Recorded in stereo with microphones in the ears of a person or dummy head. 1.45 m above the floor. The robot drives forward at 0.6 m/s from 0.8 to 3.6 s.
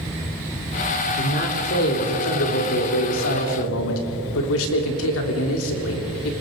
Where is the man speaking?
55° left (ahead or behind), 3.5 m; by 6.3 s 80° left, 3 m.